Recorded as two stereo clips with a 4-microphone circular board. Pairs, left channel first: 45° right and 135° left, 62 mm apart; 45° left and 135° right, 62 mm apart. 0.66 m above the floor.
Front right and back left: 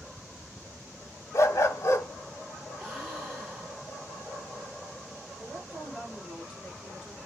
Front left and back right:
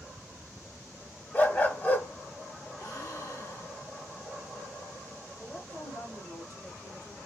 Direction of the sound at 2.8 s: 60° left.